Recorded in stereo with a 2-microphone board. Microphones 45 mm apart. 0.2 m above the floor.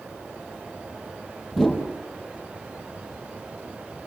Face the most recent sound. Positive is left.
turn(degrees=5)  # may be behind; listen again after turning